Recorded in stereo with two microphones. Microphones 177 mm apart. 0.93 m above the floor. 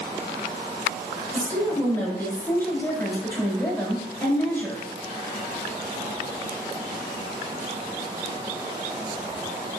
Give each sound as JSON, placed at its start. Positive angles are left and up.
{"t": 1.3, "sound": "a woman speaking", "side_deg": 15, "distance_m": 3.5}